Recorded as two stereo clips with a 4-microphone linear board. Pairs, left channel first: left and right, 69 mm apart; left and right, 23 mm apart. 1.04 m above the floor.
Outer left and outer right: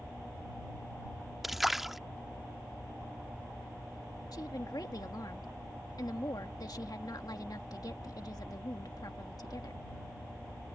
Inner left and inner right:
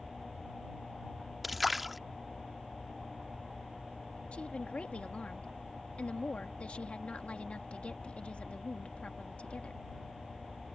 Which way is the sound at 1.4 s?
5° right (ahead or behind).